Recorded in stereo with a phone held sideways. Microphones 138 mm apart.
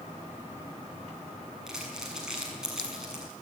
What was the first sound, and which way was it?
Crumpling, 5° right (ahead or behind).